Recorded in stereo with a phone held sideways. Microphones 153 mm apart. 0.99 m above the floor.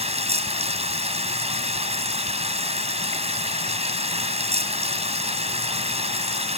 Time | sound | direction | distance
0.0 | running water | 45° right (ahead or behind) | ?